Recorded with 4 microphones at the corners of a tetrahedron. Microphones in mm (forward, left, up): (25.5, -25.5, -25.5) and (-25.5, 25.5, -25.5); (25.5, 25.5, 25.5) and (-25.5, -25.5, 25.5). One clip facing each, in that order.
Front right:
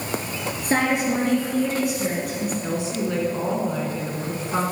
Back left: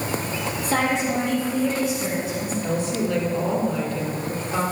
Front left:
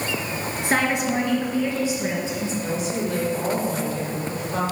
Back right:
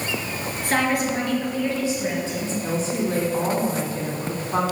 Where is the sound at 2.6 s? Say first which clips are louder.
Back left 1 dB, back right 3 dB; 105° right, 2 m.